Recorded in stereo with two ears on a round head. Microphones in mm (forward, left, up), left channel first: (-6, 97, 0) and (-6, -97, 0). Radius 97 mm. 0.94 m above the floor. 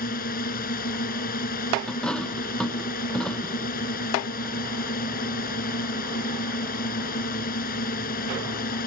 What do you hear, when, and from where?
0.0 s a drone: 45° left (ahead or behind)
1.9 s a dropped coin: 5° left (ahead or behind)